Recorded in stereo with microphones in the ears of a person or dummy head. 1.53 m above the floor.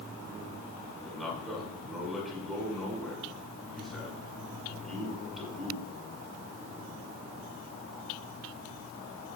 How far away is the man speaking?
About 6 m.